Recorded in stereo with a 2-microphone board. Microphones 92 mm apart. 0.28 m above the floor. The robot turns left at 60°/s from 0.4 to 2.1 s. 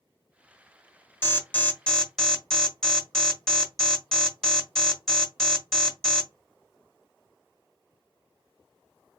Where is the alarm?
25° left (ahead or behind), 1.6 m; by 6.3 s 5° left (ahead or behind), 1.6 m.